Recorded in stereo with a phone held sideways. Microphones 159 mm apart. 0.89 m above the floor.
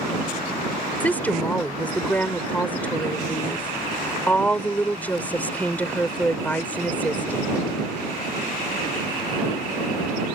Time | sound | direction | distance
1.0 | a woman speaking | 10° left (ahead or behind) | ?